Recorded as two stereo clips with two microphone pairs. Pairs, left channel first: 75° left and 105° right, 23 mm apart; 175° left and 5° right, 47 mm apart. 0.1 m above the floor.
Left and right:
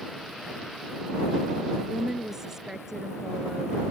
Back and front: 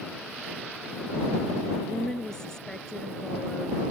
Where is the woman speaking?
130° right.